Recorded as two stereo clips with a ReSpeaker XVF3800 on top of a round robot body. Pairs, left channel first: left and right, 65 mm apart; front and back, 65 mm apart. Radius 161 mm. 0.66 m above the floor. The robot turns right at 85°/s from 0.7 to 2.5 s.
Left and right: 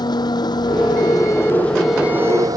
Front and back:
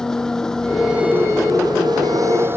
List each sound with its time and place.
0.0 s an engine running: 80° left; by 2.6 s 125° right